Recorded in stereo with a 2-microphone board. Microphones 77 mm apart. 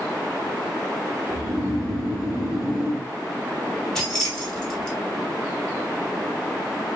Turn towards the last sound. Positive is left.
turn(degrees=10)  # may be behind; listen again after turning